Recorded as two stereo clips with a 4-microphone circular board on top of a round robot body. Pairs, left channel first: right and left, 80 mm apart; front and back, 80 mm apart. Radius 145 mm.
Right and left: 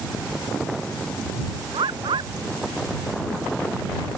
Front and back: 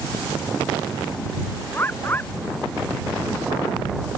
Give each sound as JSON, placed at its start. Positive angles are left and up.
{"t": 1.7, "sound": "a bird", "azimuth_deg": 65}